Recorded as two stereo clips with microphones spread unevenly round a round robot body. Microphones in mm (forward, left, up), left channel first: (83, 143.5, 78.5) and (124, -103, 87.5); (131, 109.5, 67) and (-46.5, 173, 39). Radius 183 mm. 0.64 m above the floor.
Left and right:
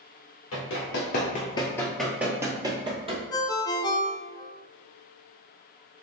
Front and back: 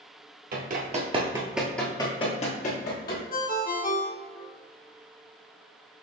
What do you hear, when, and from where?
0.5 s running footsteps: 135° left, 0.8 m; by 3.2 s 15° right, 1.1 m
3.3 s a ringtone: 25° left, 0.8 m